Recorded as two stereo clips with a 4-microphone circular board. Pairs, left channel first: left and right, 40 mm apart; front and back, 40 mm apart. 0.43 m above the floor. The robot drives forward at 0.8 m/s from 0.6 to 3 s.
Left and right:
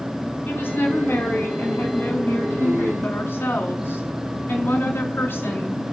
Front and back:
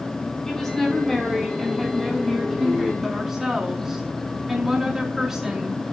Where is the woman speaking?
75° left, 5 m; by 5.9 s 100° left, 5 m.